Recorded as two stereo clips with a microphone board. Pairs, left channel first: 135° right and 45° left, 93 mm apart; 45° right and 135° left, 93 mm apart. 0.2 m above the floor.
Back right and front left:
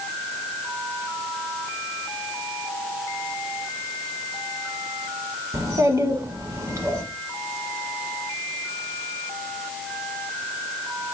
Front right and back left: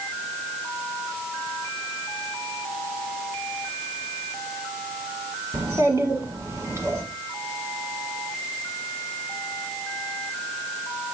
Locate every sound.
5.5 s a child speaking: 90° left, 0.9 m